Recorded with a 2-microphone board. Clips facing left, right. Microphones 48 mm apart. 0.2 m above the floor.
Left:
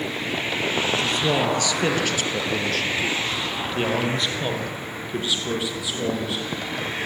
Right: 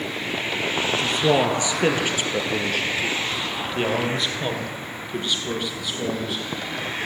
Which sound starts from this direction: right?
A man speaking, at 0.9 s.